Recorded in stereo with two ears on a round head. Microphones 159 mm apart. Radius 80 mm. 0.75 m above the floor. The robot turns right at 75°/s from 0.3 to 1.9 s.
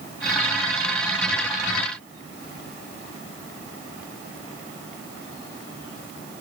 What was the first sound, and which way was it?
Only background noise.